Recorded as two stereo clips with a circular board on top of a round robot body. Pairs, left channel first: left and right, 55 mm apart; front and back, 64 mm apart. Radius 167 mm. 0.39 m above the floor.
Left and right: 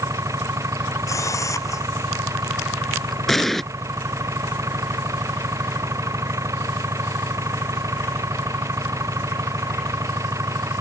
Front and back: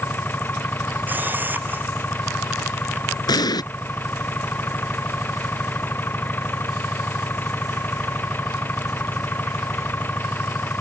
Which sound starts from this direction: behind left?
A camera shutter, at 1.1 s.